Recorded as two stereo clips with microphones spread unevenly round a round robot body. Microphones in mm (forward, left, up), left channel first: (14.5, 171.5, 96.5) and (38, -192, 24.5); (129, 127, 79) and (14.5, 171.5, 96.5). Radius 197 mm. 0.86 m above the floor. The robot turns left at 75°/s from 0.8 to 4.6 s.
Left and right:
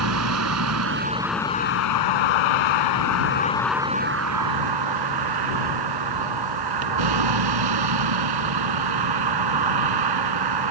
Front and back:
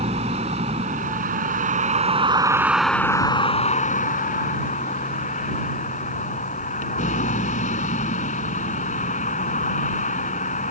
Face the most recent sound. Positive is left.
turn(degrees=-65)